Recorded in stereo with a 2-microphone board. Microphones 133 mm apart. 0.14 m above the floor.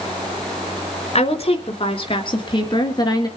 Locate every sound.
1.1 s a woman speaking: 45° left (ahead or behind), 2.5 m; by 3.3 s 30° left (ahead or behind), 2.5 m